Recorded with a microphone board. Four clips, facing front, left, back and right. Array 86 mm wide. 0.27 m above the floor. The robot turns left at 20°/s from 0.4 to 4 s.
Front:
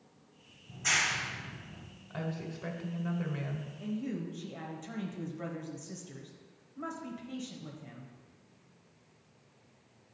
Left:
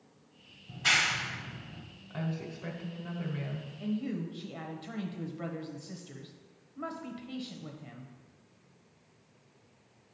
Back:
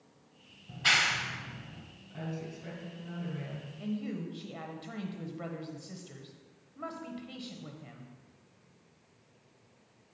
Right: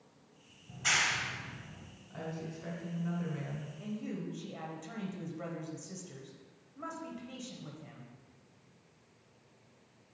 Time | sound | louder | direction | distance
0.7 | a clap | left 3 dB, back 3 dB | 155° left | 1.0 m
2.1 | a woman speaking | left 4 dB, front 2 dB | 30° left | 1.5 m
3.8 | a woman speaking | left 6 dB, back 1 dB | 135° left | 1.0 m